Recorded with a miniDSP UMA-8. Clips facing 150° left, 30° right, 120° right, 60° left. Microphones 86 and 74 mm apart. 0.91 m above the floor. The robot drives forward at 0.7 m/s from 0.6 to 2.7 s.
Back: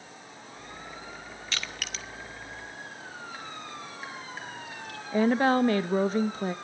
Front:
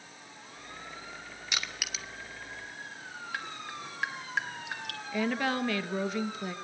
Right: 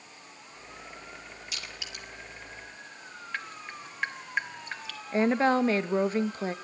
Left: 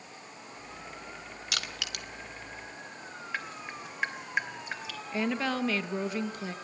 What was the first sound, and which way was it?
Crushing, 45° left.